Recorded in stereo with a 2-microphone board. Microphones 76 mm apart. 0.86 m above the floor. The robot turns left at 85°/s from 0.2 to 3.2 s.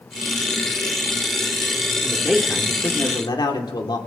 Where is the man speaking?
155° right, 2 m; by 4.0 s 105° left, 2 m.